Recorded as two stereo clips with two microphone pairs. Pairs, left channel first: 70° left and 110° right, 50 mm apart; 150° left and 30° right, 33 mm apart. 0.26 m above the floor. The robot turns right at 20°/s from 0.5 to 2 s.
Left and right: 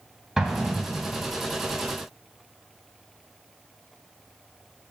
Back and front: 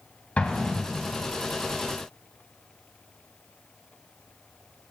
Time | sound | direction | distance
0.4 | an explosion | 170° left | 2.0 m